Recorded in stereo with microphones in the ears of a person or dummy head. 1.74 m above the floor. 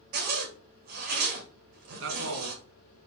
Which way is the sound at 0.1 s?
55° right (ahead or behind).